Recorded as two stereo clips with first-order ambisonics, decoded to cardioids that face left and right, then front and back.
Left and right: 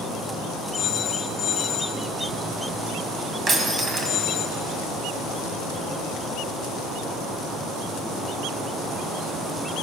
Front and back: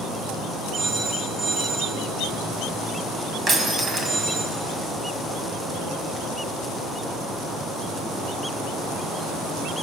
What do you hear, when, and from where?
0.7 s a phone ringing: 130° left, 1.9 m
3.5 s breaking glass: 135° right, 1.7 m